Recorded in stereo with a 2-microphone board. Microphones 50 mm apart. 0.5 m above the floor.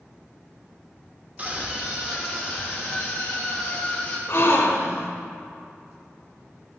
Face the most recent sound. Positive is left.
turn(degrees=55)  # may be behind; listen again after turning